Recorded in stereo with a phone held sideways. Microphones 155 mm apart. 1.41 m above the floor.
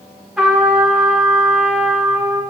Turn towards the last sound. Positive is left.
turn(degrees=-5)  # may be behind; listen again after turning